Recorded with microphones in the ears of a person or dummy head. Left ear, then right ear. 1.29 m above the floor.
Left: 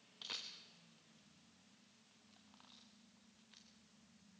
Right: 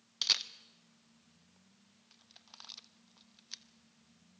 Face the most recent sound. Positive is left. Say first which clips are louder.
# right 16 dB
turn(degrees=-65)  # may be behind; listen again after turning